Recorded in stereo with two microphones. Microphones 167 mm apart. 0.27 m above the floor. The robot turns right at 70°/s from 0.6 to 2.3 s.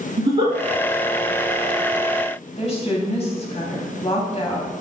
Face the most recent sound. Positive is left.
turn(degrees=40)  # may be behind; listen again after turning